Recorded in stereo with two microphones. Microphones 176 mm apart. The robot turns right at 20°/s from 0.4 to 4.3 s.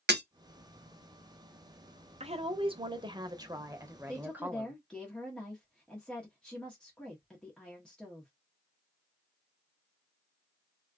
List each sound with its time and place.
0.1 s breaking glass: 80° right, 0.8 m
2.2 s a woman speaking: 55° right, 0.8 m; by 4.8 s 15° right, 0.8 m
4.1 s a woman speaking: 5° left (ahead or behind), 1.0 m